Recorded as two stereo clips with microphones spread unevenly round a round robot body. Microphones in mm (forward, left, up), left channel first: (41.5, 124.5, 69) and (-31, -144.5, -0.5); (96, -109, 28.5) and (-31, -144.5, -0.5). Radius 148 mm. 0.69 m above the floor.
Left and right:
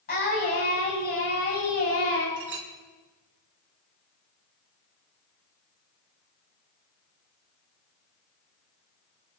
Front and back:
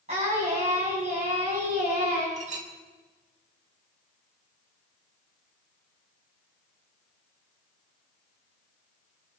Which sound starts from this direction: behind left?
Singing, at 0.1 s.